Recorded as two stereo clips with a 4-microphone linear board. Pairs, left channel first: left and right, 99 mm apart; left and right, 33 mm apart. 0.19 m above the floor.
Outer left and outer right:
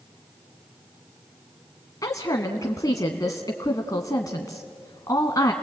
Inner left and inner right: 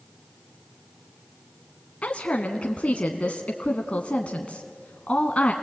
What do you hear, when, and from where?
2.0 s a woman speaking: 35° left (ahead or behind), 1.4 m